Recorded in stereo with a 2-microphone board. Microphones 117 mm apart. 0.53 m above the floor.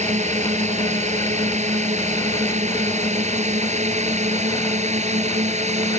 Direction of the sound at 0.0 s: 80° right.